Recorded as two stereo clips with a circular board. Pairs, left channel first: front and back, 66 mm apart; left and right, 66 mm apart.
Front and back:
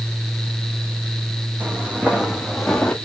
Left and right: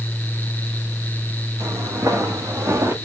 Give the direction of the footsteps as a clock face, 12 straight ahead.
4 o'clock.